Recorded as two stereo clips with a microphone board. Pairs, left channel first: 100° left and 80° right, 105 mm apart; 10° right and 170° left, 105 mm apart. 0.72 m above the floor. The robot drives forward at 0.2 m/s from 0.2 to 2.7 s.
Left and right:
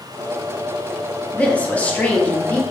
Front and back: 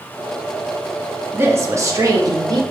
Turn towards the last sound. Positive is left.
turn(degrees=165)